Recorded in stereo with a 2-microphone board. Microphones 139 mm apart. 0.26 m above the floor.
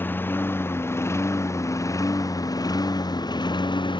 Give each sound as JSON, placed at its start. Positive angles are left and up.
{"t": 0.0, "sound": "a lawn mower", "side_deg": 15}